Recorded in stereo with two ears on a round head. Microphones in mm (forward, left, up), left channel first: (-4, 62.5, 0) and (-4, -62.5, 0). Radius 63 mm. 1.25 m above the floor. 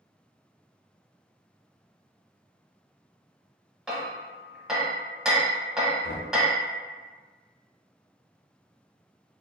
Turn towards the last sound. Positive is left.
turn(degrees=70)  # may be behind; listen again after turning